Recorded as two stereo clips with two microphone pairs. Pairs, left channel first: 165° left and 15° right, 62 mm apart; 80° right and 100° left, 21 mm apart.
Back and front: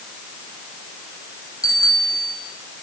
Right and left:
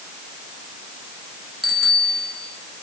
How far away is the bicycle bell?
About 4.5 m.